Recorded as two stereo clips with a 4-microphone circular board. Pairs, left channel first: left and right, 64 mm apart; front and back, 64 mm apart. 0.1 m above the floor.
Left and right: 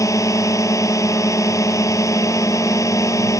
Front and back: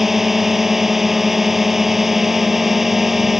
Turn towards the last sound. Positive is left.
turn(degrees=95)